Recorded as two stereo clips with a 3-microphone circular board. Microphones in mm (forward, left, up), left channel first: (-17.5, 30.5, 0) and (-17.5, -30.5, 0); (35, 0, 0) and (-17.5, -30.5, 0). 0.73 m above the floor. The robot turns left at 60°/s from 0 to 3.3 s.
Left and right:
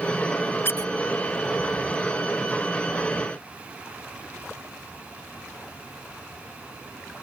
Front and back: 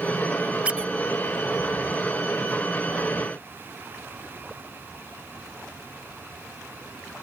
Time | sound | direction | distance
0.7 | a squeak | 140° left | ?